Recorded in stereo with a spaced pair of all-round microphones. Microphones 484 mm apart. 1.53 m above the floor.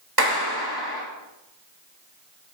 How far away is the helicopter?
I don't hear a helicopter.